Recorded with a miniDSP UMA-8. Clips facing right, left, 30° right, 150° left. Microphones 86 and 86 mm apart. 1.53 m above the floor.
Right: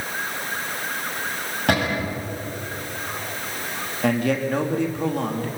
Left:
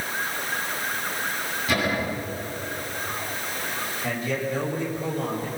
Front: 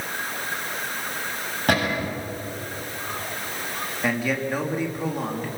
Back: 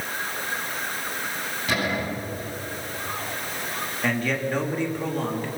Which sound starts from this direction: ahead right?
A cupboard door, at 1.7 s.